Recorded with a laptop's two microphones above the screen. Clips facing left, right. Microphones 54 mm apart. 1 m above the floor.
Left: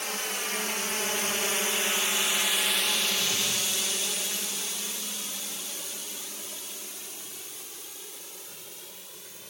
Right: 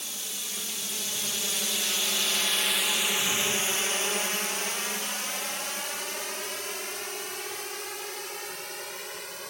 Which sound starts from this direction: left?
A drone, at 0.0 s.